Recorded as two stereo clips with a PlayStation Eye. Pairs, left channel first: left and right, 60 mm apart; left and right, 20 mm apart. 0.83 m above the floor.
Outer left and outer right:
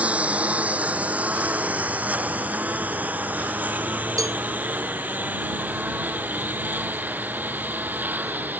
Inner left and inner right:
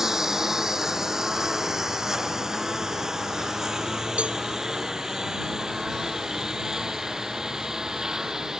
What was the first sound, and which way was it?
A lawn mower, 20° right (ahead or behind).